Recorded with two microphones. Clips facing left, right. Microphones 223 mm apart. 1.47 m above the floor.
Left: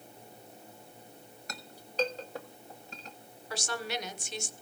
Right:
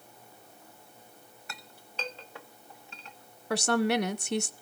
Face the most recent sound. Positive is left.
turn(degrees=-55)  # may be behind; listen again after turning